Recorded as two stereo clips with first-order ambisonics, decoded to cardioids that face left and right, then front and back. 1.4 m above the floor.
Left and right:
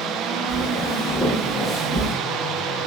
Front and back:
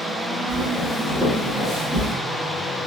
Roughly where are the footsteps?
Left.